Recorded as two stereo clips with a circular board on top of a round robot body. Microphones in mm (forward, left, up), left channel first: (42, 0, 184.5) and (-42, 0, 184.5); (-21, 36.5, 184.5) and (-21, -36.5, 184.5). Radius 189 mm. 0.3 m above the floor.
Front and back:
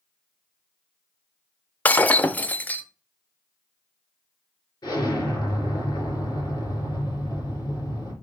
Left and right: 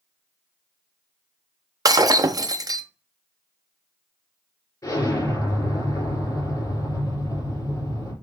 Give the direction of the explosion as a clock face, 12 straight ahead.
10 o'clock.